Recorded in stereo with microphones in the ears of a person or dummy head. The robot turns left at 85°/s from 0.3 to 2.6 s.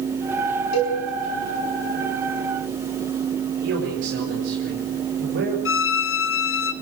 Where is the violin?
50° left (ahead or behind), 0.8 m.